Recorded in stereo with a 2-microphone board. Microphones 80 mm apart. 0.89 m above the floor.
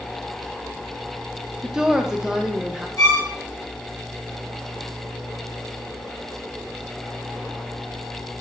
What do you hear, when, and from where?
1.6 s a woman speaking: 10° right (ahead or behind), 0.5 m
3.0 s a violin: 55° left (ahead or behind), 1.7 m